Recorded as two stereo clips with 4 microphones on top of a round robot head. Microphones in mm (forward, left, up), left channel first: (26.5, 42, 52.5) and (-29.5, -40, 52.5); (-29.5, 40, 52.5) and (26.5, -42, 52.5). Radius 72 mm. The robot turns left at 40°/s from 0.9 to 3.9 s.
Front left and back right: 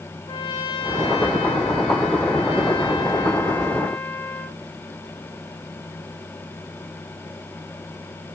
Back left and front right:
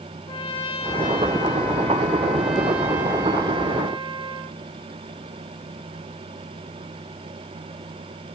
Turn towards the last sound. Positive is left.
turn(degrees=-25)